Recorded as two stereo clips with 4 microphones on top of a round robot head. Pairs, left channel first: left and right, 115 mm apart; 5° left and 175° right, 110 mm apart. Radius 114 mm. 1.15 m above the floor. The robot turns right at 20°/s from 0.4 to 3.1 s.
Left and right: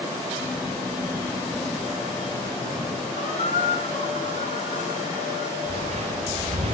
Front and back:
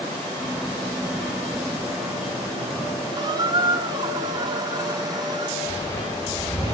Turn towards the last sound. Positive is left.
turn(degrees=-55)